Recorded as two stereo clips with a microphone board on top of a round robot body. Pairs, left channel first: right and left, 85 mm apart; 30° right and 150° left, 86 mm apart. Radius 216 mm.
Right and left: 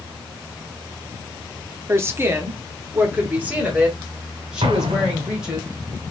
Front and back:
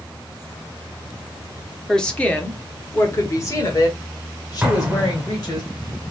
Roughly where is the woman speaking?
Ahead left.